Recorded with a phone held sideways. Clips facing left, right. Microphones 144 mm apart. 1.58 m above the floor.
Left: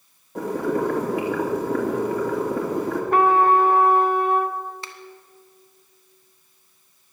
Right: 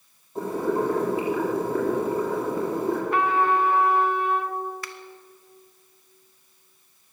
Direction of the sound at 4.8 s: 25° left (ahead or behind).